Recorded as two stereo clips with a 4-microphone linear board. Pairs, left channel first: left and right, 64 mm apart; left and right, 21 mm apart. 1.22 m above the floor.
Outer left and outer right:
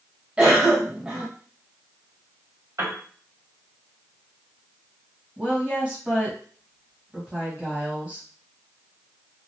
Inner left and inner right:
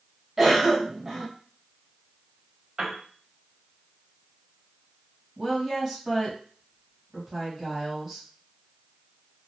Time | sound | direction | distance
0.4 | a cough | 15° right (ahead or behind) | 1.1 m
2.8 | a piano | 55° right (ahead or behind) | 1.7 m
5.4 | a woman speaking | 20° right (ahead or behind) | 1.2 m